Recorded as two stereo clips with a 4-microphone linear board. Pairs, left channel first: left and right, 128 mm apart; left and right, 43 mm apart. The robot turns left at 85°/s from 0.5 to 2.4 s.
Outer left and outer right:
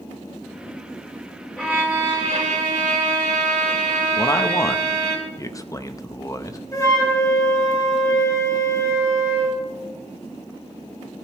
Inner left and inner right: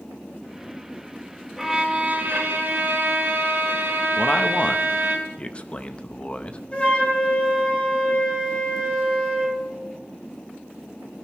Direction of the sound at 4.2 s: 25° left (ahead or behind).